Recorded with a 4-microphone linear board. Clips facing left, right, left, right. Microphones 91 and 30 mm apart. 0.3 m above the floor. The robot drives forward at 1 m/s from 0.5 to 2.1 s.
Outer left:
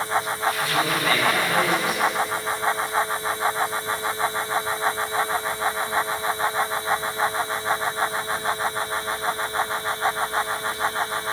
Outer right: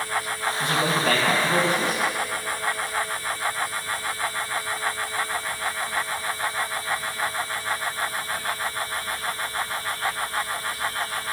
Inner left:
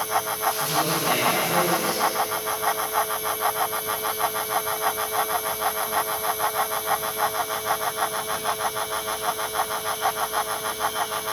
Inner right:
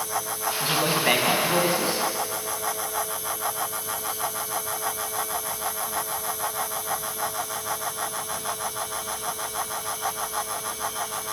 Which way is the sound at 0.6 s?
55° right (ahead or behind).